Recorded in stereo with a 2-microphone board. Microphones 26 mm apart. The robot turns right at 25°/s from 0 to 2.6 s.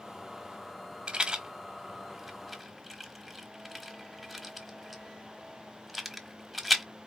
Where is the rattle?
35° right (ahead or behind), 1.2 m; by 6.8 s 5° left (ahead or behind), 1.2 m.